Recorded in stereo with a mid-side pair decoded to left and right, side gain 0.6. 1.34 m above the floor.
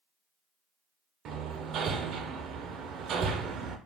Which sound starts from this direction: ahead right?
Hammering, at 1.2 s.